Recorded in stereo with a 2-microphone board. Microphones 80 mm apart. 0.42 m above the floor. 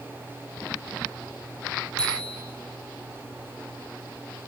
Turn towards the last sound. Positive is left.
turn(degrees=10)  # may be behind; listen again after turning